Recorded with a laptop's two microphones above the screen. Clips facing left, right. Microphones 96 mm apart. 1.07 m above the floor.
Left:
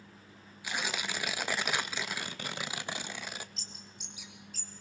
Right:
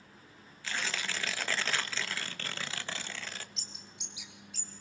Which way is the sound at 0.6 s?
15° left (ahead or behind).